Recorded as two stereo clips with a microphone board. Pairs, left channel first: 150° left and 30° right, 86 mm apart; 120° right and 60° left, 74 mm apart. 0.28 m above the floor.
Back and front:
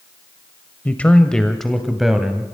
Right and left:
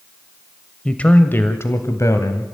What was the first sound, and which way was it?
A man speaking, 175° right.